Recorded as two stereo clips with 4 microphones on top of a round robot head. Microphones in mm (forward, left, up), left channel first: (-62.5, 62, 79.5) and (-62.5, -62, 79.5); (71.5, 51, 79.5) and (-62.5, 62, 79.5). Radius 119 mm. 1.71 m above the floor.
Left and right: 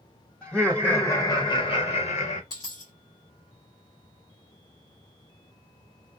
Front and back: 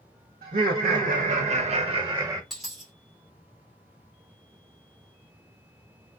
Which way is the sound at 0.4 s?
Straight behind.